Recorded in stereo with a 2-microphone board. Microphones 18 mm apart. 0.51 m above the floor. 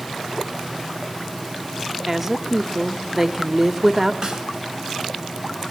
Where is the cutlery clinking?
I don't hear cutlery clinking.